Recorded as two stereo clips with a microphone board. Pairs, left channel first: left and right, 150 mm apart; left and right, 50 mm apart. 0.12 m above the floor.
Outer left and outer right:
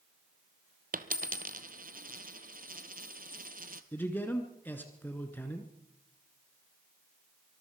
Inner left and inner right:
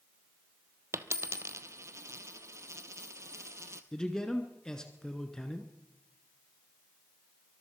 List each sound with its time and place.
0.9 s a dropped coin: 70° right (ahead or behind), 0.8 m
3.9 s a man speaking: 15° left (ahead or behind), 1.3 m